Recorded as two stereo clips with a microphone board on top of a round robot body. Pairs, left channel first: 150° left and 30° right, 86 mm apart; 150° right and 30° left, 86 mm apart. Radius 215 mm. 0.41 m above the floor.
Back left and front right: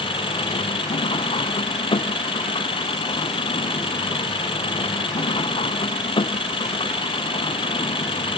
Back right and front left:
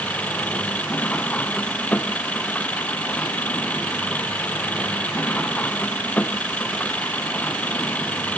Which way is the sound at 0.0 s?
135° left.